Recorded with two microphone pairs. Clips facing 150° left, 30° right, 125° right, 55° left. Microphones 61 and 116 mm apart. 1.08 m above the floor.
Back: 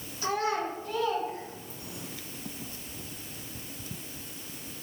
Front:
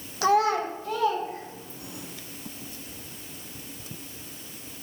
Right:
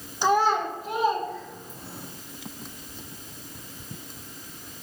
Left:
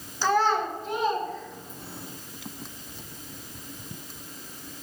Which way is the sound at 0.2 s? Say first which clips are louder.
Front 7 dB, right 1 dB; 50° right.